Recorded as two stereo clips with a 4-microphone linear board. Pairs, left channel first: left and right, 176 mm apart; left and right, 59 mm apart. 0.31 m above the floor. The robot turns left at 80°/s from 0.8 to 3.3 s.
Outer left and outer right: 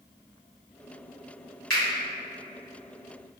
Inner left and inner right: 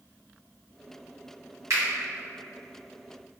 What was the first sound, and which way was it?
A finger snap, 60° right (ahead or behind).